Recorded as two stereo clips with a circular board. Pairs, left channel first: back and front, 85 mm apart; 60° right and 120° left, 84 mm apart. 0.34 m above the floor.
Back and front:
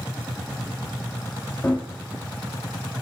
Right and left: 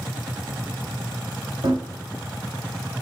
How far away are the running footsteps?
About 0.9 m.